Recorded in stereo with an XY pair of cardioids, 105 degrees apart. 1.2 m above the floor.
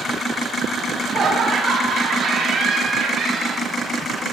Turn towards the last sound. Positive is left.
turn(degrees=-60)